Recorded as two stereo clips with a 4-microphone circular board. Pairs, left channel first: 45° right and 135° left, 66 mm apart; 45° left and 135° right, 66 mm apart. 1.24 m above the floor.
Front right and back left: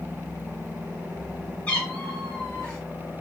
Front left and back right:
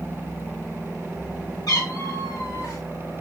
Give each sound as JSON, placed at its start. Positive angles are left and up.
{"t": 1.7, "sound": "a cat meowing", "azimuth_deg": 25, "distance_m": 4.0}